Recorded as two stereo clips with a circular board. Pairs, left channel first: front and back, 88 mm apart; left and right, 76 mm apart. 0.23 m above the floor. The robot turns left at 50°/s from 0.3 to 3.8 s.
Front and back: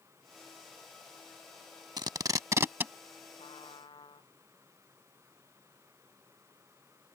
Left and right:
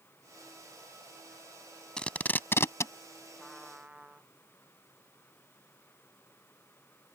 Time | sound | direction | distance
2.0 | tape being pulled | 165° left | ?
3.4 | a trumpet | 5° left | ?